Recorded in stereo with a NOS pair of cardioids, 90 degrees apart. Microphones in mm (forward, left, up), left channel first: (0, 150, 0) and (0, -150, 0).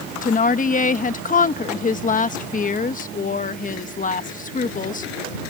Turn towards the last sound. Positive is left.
turn(degrees=25)